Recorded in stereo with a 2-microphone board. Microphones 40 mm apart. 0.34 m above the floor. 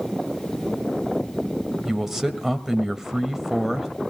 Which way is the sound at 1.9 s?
10° right (ahead or behind).